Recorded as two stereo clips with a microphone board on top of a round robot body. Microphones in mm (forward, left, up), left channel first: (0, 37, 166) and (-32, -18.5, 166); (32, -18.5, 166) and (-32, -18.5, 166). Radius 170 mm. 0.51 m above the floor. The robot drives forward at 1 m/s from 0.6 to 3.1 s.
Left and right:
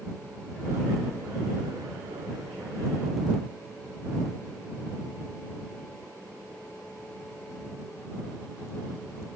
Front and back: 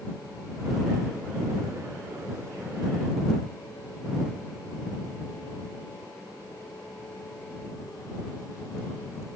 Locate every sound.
Only background noise.